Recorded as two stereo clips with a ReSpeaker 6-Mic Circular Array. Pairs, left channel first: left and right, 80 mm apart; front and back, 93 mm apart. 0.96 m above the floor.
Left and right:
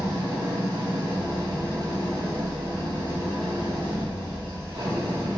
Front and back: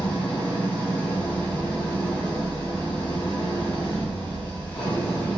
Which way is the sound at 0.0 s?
75° right.